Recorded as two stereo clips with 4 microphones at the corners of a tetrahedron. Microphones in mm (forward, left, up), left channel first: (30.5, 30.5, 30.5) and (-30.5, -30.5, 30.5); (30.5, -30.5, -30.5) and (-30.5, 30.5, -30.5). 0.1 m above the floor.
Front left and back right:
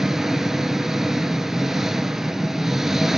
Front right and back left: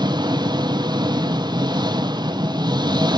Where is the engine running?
140° left, 0.7 m.